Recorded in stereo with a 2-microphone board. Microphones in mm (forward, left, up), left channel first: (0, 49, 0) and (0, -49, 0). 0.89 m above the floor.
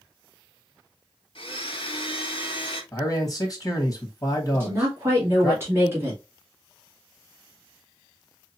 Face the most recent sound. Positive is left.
turn(degrees=-25)  # may be behind; listen again after turning